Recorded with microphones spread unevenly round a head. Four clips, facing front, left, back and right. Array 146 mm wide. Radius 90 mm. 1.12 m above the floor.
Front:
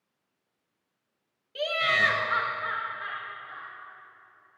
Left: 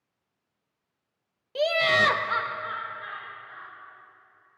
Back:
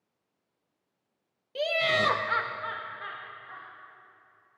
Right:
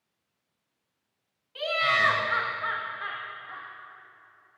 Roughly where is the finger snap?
I don't hear a finger snap.